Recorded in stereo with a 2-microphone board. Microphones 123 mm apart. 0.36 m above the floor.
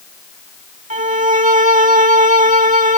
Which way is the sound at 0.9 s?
85° right.